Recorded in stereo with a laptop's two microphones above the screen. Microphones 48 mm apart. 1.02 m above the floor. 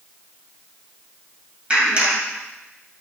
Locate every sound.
1.7 s a clap: 25° right (ahead or behind), 4.5 m